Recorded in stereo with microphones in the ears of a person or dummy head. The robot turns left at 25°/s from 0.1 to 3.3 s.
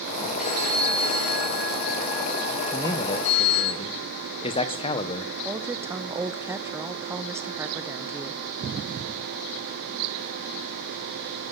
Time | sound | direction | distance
0.4 | a phone ringing | 145° left | 4.5 m
2.7 | a man speaking | 5° left (ahead or behind) | 0.9 m
5.5 | a woman speaking | 20° right (ahead or behind) | 0.8 m